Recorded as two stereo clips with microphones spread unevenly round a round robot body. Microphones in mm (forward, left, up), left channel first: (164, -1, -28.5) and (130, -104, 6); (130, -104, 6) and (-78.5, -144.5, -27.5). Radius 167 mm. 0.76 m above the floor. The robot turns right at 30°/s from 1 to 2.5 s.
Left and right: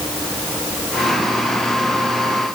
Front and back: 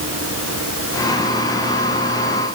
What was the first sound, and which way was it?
Only background noise.